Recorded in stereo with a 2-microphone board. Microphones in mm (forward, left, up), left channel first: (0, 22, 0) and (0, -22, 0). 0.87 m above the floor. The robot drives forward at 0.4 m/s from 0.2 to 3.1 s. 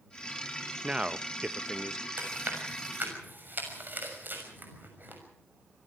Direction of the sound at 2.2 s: 40° right (ahead or behind).